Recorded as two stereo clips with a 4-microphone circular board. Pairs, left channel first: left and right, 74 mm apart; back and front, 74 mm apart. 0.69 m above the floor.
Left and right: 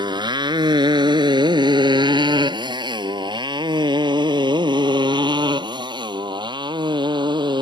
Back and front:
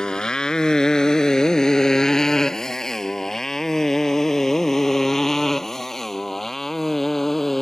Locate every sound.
0.0 s a motorcycle: 100° right; by 7.6 s 95° right